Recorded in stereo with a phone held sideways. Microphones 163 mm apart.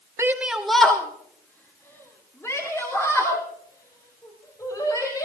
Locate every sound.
0.2 s a shout: 20° right (ahead or behind), 0.8 m; by 5.2 s 25° left (ahead or behind), 6 m